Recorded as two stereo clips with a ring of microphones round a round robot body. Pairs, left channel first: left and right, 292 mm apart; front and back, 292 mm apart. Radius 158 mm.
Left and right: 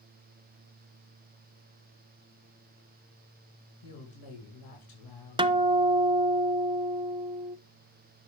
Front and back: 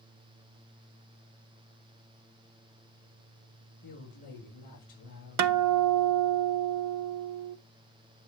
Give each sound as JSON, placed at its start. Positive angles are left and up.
{"t": 3.8, "sound": "a woman speaking", "azimuth_deg": 65, "distance_m": 6.0}
{"t": 5.4, "sound": "a guitar", "azimuth_deg": -165, "distance_m": 0.7}